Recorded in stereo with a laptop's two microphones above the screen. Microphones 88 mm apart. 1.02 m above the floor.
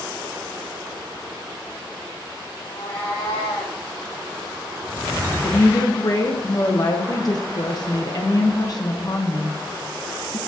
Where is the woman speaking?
45° left (ahead or behind), 0.6 m.